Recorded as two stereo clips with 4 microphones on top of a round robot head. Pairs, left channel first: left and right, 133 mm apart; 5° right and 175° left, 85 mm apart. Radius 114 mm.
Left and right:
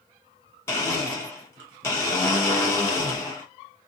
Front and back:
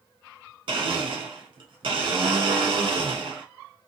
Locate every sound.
0.7 s a blender: 160° left, 1.8 m